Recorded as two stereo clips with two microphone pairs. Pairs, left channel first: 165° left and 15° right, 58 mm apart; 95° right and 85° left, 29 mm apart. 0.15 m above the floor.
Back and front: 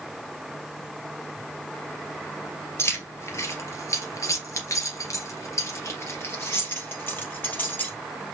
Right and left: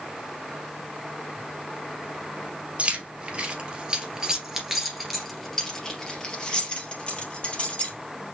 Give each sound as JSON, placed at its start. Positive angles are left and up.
{"t": 2.8, "sound": "keys jangling", "azimuth_deg": 125, "distance_m": 2.0}